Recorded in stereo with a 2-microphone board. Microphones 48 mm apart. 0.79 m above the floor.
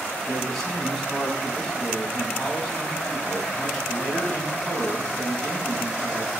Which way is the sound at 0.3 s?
5° left (ahead or behind).